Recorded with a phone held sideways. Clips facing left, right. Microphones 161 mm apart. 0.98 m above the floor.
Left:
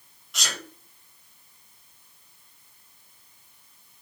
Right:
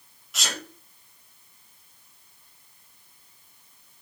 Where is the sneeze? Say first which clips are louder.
Right 2 dB; centre (ahead or behind), 6.5 m.